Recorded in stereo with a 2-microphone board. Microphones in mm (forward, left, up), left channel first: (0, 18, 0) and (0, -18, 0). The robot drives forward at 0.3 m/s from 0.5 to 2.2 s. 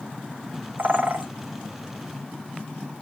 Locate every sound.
0.8 s a bird: 60° right (ahead or behind), 1.1 m; by 1.3 s 50° right (ahead or behind), 1.2 m